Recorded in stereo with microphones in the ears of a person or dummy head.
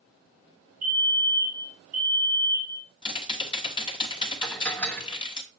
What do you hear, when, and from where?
0.8 s a fire alarm: 45° right (ahead or behind), 2 m
3.0 s typing on a keyboard: 25° left (ahead or behind), 1.1 m
4.4 s dishes clattering: 10° left (ahead or behind), 1.1 m